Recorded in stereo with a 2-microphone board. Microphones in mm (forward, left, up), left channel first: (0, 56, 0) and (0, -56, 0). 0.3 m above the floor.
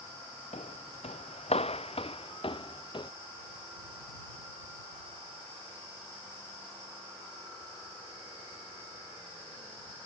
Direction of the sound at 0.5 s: 80° left.